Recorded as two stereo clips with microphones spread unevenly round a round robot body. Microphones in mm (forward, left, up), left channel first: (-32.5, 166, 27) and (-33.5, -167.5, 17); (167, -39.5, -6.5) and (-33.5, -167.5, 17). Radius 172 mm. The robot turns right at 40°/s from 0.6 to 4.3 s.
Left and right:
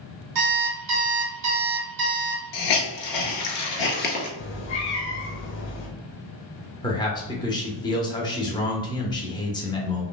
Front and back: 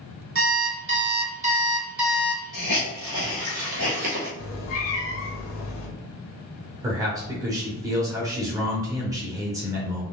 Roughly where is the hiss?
Left.